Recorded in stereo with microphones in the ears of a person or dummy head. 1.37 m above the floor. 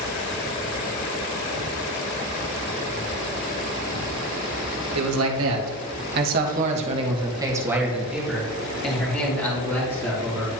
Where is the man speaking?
80° right, 1.5 m; by 10.5 s 20° left (ahead or behind), 3 m.